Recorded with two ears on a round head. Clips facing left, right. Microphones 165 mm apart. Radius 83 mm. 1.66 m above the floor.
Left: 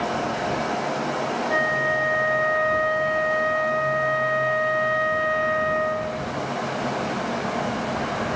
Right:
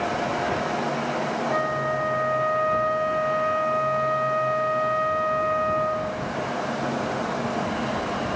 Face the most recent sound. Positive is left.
turn(degrees=10)  # may be behind; listen again after turning